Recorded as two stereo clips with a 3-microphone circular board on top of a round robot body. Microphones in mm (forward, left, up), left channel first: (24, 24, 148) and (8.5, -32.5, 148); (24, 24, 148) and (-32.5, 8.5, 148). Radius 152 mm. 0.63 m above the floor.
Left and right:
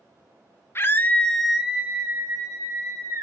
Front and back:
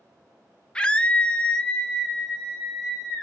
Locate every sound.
0.8 s a scream: 80° left, 0.9 m; by 3.2 s 70° right, 1.9 m